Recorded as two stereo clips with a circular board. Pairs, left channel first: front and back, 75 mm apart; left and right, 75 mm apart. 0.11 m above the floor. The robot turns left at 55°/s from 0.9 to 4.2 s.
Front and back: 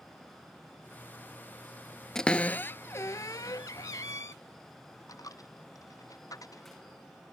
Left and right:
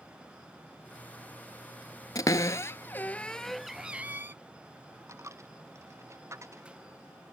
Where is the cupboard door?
80° left; by 4.3 s 35° right.